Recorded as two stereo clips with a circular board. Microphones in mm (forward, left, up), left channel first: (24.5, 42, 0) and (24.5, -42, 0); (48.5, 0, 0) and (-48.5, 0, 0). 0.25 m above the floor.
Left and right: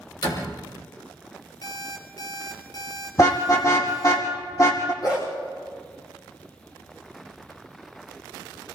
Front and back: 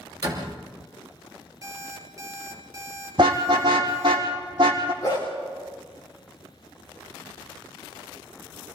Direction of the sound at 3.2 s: 140° left.